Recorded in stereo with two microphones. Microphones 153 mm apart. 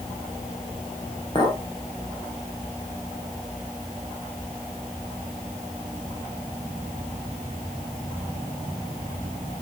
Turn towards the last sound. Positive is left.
turn(degrees=30)  # may be behind; listen again after turning